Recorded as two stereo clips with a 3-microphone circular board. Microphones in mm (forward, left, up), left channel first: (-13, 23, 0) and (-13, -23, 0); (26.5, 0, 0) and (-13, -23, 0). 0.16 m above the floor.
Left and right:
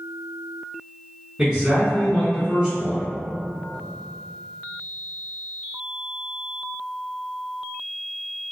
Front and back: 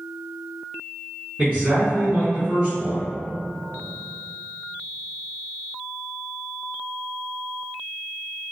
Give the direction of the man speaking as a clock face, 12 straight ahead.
5 o'clock.